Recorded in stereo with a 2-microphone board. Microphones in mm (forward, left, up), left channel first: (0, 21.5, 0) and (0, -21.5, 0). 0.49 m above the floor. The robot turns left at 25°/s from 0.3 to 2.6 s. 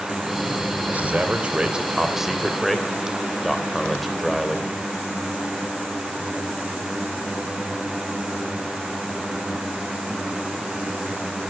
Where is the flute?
No flute in this recording.